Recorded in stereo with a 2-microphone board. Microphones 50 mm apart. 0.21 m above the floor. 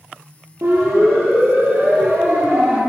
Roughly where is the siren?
Right.